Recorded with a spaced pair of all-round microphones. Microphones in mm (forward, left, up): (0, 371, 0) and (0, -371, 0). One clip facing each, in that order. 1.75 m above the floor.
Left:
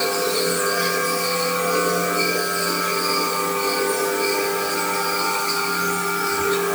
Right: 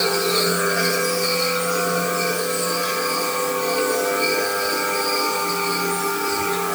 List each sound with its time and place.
Only background noise.